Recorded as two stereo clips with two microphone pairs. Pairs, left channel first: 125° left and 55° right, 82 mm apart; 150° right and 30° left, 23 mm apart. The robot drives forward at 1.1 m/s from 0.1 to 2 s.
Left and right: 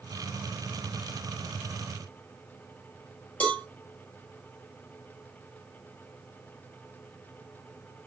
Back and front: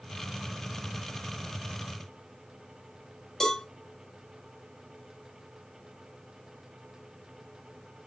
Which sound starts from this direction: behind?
A cowbell, at 3.4 s.